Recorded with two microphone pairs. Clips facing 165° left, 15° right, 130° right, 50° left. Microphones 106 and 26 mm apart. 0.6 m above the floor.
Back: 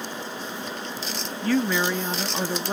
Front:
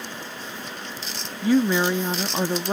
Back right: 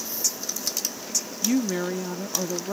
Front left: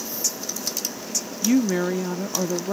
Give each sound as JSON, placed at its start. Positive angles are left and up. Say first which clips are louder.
{"t": 1.4, "sound": "a woman speaking", "louder": "front 4 dB, front left 4 dB", "azimuth_deg": 15}